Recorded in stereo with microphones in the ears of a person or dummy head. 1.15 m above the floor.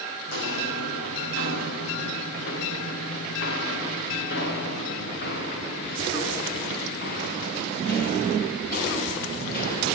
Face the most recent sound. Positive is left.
turn(degrees=50)  # may be behind; listen again after turning